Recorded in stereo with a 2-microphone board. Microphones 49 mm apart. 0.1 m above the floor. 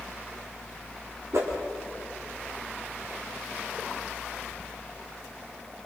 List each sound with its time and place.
1.3 s a whoosh: 75° right (ahead or behind), 5 m